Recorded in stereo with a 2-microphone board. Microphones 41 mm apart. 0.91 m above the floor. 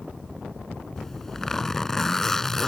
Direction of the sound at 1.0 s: 10° left (ahead or behind).